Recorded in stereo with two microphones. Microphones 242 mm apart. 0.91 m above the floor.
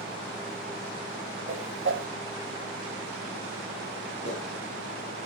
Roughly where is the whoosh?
Right.